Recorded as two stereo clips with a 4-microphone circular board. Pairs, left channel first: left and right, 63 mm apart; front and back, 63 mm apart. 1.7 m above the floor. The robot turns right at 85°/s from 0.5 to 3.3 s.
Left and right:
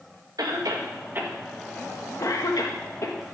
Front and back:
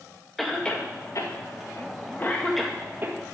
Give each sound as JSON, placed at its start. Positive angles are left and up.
{"t": 0.4, "sound": "a cough", "azimuth_deg": -90, "distance_m": 1.9}